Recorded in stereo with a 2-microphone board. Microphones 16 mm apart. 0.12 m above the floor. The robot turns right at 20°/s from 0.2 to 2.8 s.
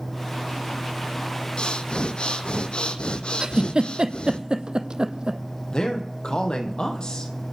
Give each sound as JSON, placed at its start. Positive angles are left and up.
{"t": 1.6, "sound": "breathing", "side_deg": 65, "distance_m": 1.1}
{"t": 3.4, "sound": "a giggle", "side_deg": -60, "distance_m": 0.9}
{"t": 5.7, "sound": "a man speaking", "side_deg": 60, "distance_m": 3.5}